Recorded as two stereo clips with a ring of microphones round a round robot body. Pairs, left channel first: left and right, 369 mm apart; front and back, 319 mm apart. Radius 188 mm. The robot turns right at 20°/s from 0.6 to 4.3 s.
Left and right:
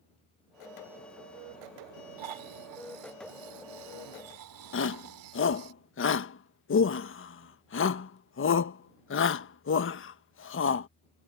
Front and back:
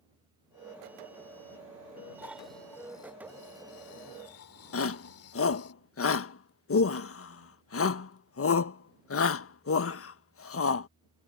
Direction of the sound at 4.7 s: 40° left.